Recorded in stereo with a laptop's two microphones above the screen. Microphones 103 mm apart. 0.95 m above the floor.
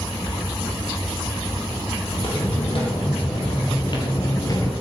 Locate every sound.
2.1 s footsteps: 65° left (ahead or behind), 3 m; by 4.7 s 30° left (ahead or behind), 1.1 m